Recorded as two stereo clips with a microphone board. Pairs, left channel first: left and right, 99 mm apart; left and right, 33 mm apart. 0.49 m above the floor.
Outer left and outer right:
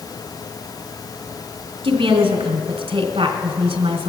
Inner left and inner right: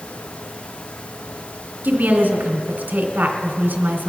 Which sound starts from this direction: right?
A woman speaking, at 1.8 s.